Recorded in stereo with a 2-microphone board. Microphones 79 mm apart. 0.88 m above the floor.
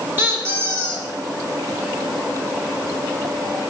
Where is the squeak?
30° right (ahead or behind), 1.5 m.